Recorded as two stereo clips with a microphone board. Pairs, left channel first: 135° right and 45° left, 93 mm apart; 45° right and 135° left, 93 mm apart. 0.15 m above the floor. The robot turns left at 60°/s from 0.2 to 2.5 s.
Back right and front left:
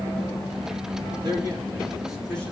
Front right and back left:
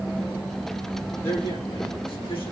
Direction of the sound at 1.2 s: 15° left.